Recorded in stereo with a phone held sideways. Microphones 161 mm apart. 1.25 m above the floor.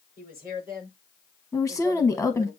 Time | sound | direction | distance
0.2 | a woman speaking | 65° right (ahead or behind) | 6 m
1.5 | a woman speaking | 10° left (ahead or behind) | 1.0 m